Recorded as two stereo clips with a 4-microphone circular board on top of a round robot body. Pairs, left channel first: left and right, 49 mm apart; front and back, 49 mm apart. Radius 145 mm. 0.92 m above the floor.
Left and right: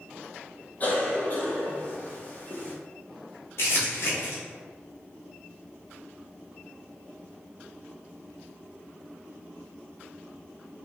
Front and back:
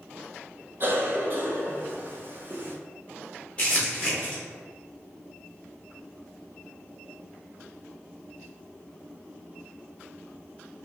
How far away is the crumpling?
About 0.6 m.